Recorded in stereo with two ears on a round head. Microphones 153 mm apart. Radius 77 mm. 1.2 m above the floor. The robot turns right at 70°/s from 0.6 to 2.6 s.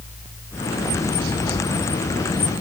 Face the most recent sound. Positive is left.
No sound to turn to.